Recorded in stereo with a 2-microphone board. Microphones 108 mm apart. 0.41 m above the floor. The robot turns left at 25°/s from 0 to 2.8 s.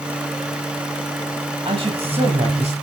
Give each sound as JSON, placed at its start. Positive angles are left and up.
{"t": 1.6, "sound": "a man speaking", "side_deg": -60, "distance_m": 2.5}